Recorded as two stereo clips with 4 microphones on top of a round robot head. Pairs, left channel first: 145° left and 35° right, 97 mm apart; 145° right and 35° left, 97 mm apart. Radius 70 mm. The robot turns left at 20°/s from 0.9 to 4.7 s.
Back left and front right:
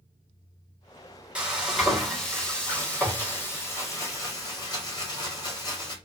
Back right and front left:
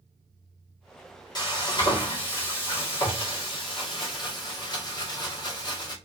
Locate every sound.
1.4 s frying: 110° right, 1.7 m; by 6.0 s 175° right, 1.7 m